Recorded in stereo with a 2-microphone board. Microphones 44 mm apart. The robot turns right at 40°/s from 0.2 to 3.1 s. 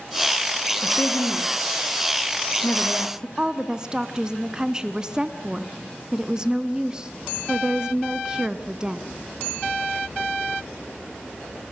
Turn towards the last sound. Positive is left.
turn(degrees=-15)  # may be behind; listen again after turning